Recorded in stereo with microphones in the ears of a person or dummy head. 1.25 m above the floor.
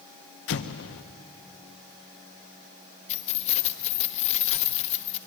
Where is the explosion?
60° left (ahead or behind), 0.9 m.